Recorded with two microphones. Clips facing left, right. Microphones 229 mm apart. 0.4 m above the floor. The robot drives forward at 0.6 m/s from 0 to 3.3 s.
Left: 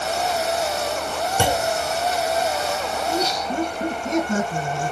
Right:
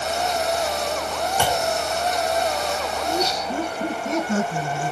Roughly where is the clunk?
Left.